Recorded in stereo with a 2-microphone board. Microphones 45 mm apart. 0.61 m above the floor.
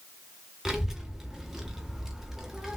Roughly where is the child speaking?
Centre.